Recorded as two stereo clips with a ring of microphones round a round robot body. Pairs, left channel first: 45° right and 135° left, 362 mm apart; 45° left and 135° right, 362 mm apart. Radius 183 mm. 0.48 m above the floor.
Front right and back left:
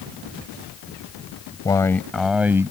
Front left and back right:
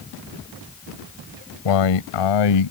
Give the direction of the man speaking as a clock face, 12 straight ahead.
11 o'clock.